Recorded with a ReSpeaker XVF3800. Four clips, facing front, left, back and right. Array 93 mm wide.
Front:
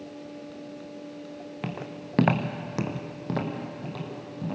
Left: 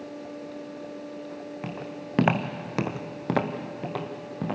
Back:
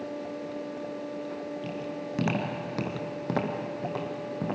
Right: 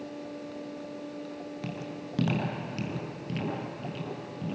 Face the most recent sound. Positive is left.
turn(degrees=120)